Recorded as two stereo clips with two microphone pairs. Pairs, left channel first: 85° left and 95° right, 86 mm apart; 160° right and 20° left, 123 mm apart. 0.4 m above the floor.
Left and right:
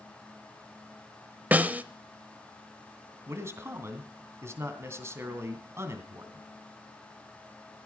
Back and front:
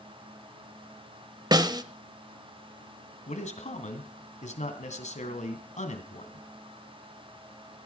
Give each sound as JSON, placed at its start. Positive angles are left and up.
{"t": 1.5, "sound": "a snare drum", "azimuth_deg": -30, "distance_m": 0.8}
{"t": 3.3, "sound": "a man speaking", "azimuth_deg": -155, "distance_m": 2.5}